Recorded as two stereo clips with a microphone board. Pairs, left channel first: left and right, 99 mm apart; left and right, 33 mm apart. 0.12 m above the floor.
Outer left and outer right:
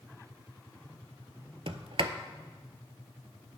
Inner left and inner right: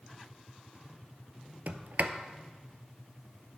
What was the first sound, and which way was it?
A sliding door, 65° right (ahead or behind).